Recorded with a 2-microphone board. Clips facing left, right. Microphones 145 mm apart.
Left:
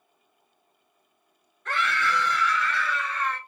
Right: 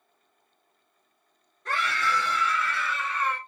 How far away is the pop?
No pop in this recording.